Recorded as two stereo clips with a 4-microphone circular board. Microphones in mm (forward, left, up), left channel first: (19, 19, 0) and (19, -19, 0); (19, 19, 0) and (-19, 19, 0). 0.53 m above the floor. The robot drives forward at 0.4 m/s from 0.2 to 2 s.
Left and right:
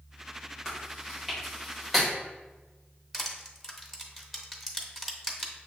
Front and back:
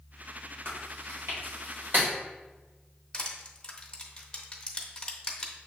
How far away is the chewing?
About 1.6 m.